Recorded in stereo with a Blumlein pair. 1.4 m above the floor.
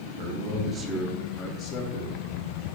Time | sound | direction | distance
0.2 | a man speaking | 45° right | 0.6 m